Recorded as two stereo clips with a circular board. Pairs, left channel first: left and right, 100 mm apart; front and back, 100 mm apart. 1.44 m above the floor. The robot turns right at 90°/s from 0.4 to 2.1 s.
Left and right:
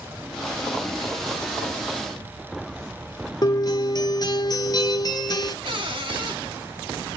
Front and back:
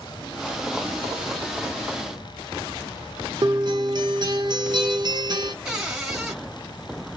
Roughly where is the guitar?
Behind left.